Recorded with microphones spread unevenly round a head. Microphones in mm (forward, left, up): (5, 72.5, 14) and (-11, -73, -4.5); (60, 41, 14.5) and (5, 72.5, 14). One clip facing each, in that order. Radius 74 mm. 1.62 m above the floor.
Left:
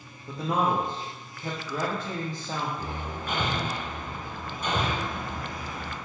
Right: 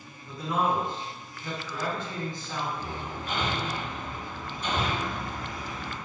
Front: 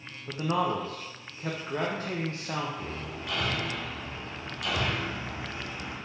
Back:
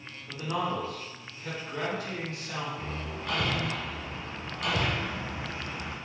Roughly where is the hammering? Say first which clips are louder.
Left 1 dB, even; left.